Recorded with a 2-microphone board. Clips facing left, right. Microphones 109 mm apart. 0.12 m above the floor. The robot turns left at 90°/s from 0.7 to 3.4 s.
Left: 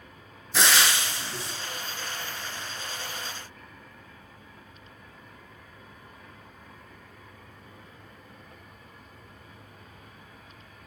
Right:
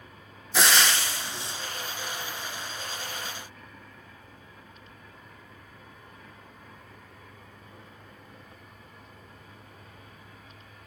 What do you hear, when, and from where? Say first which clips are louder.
0.5 s frying: even; straight behind, 0.5 m; by 1.5 s 105° left, 0.5 m